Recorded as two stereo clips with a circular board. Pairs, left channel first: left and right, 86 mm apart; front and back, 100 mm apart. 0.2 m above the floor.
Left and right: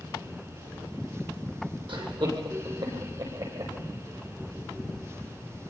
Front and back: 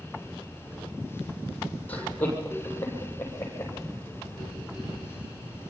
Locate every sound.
1.9 s laughter: 75° right, 9 m; by 3.7 s 65° right, 9 m